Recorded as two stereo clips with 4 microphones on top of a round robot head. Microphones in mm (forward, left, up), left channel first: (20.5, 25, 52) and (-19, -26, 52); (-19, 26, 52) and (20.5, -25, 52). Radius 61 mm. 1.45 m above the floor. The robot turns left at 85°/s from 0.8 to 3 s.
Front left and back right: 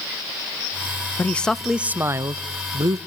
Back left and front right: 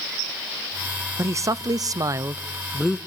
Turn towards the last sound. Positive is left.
turn(degrees=-160)